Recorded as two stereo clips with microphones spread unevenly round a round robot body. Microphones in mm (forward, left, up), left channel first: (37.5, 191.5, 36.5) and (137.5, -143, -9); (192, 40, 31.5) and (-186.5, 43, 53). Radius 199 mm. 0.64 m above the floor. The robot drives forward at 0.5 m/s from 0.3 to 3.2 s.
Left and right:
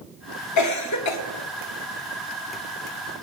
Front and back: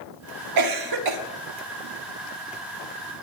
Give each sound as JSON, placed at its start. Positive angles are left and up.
{"t": 0.6, "sound": "a cough", "azimuth_deg": 155, "distance_m": 1.4}